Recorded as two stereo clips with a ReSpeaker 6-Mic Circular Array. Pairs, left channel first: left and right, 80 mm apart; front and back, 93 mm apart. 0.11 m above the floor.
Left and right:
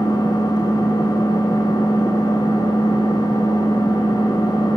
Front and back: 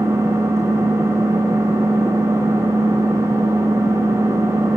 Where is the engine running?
125° left, 7 m.